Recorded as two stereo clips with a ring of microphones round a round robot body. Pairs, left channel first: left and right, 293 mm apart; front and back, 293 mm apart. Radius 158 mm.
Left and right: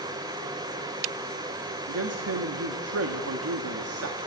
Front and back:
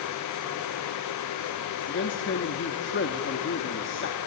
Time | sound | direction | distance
1.9 | a man speaking | 50° right | 1.4 m